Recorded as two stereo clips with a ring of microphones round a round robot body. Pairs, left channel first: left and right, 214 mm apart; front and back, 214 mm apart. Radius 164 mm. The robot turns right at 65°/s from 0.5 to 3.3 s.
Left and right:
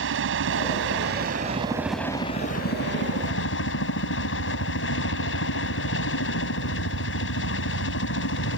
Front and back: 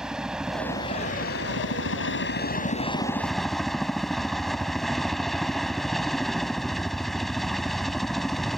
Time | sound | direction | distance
0.0 | a helicopter | 95° right | ?